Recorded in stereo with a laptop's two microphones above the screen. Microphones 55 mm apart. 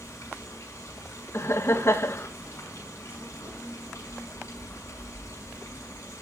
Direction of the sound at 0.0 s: 60° left (ahead or behind).